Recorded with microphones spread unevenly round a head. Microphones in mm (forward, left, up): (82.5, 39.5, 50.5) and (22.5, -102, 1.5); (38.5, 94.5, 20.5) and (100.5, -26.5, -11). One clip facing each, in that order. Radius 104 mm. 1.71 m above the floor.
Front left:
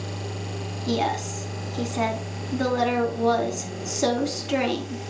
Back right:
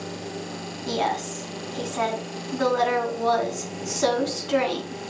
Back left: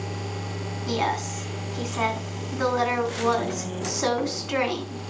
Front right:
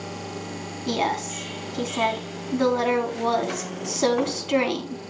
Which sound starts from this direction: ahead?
A woman speaking, at 0.9 s.